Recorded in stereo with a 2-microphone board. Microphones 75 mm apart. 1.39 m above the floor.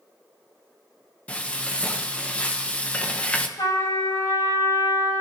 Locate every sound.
1.3 s frying: 20° left (ahead or behind), 1.2 m
3.6 s a trumpet: 85° left, 3 m